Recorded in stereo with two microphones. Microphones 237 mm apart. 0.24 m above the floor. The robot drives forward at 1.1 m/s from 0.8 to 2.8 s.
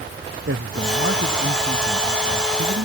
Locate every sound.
0.5 s a man speaking: 60° right (ahead or behind); by 2.9 s 70° right (ahead or behind)